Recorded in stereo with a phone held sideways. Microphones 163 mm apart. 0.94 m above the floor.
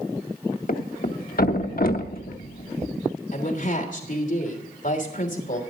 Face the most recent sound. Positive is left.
turn(degrees=55)  # may be behind; listen again after turning